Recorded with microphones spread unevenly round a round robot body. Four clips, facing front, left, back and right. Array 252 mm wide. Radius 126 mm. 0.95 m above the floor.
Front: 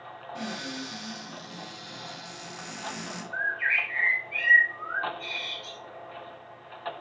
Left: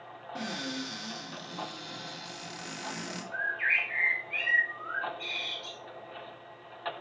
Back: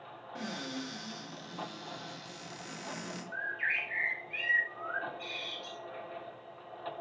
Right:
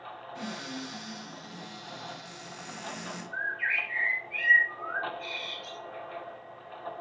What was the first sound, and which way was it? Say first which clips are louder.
A cupboard door: left 3 dB, front 3 dB; 100° left.